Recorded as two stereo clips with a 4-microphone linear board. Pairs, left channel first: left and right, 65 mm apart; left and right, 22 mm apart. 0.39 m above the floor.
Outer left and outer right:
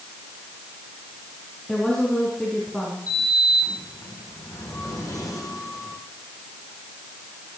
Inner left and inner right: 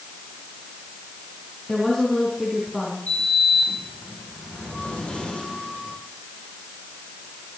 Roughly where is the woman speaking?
Centre.